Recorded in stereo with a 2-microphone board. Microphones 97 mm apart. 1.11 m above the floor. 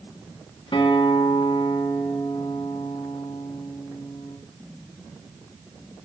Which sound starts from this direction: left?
A guitar, at 0.7 s.